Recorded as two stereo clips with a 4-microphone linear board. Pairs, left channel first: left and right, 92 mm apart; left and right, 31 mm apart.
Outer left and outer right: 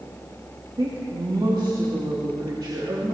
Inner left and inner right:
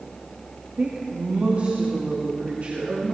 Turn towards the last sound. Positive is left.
turn(degrees=-55)  # may be behind; listen again after turning